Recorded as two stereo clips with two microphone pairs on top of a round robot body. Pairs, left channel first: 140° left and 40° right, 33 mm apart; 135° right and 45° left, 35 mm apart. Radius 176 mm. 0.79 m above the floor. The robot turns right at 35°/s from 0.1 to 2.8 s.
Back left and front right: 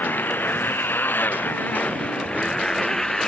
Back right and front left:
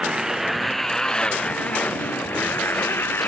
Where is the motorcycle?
115° left; by 3.3 s 150° right.